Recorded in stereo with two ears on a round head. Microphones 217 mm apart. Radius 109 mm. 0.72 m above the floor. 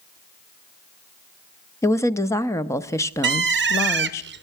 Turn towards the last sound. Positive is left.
turn(degrees=-45)  # may be behind; listen again after turning